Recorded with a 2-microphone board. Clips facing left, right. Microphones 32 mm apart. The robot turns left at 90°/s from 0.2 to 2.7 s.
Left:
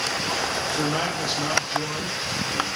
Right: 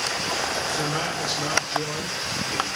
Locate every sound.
0.7 s a man speaking: 10° left (ahead or behind), 1.0 m; by 2.7 s 10° right (ahead or behind), 1.0 m